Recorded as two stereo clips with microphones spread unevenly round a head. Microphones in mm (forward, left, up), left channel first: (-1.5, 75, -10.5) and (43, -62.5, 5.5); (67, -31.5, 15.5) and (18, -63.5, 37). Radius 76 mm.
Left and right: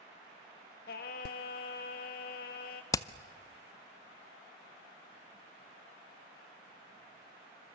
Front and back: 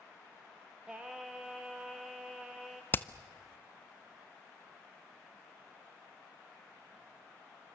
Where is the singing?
125° left, 1.7 m.